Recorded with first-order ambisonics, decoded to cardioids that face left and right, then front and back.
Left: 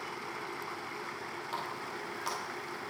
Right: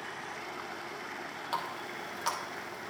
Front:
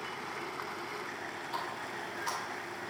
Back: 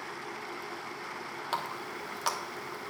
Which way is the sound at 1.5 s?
160° right.